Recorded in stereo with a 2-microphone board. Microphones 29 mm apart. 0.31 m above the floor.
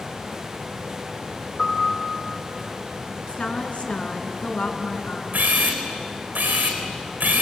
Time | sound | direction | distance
1.6 | a piano | 10° left (ahead or behind) | 5 m
3.3 | a woman speaking | 45° left (ahead or behind) | 3.5 m
5.3 | a camera shutter | 85° right | 4 m